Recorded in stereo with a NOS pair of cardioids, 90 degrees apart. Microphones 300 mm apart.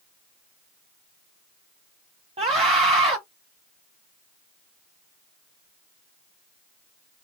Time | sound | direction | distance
2.4 | a scream | 20° right | 1.3 m